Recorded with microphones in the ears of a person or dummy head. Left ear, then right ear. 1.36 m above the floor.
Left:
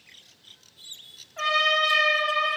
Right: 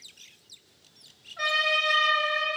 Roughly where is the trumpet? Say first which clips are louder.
Left 3 dB; left.